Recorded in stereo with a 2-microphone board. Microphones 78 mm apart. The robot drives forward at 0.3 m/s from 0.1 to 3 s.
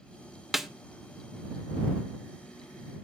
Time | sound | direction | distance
0.5 | a snare drum | centre (ahead or behind) | 0.5 m